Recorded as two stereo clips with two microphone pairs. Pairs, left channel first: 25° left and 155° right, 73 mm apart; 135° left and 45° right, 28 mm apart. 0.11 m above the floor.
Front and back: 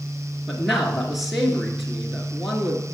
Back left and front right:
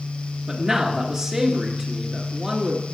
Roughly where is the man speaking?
Right.